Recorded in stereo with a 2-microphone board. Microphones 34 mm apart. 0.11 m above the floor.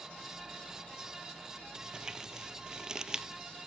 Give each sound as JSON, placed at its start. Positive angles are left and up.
{"t": 1.8, "sound": "crumpling", "side_deg": -20, "distance_m": 0.5}